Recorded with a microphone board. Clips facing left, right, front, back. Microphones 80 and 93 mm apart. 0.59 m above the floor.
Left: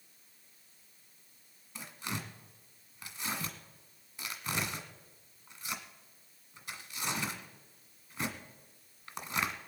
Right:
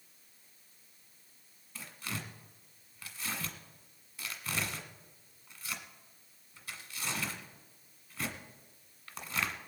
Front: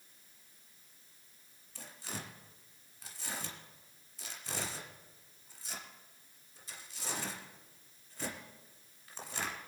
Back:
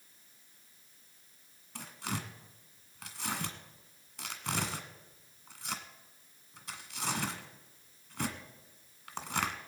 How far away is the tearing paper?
About 1.6 m.